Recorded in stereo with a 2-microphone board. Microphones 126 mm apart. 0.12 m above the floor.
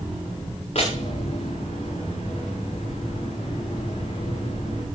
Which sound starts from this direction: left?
A door slam, at 0.8 s.